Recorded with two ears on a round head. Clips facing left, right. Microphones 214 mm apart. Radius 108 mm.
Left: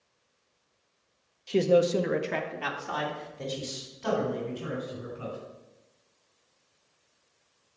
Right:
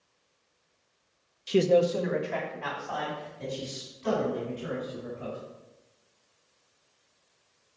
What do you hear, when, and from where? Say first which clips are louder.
1.5 s a man speaking: even; 25° right (ahead or behind), 0.7 m; by 5.4 s 85° left, 6 m